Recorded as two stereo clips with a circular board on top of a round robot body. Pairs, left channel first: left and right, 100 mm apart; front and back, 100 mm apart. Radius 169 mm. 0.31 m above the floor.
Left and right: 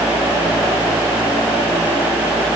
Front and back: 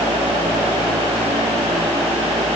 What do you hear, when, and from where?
Only background noise.